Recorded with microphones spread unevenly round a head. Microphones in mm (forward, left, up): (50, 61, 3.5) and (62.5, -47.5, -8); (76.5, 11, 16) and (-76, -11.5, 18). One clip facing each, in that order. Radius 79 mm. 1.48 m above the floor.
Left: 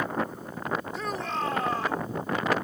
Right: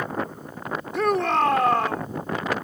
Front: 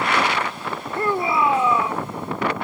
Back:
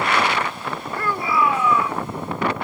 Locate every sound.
0.9 s a shout: 60° right